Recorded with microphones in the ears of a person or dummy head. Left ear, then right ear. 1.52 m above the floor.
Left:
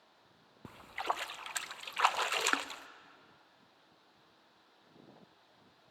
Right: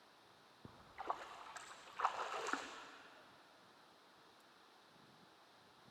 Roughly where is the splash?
Left.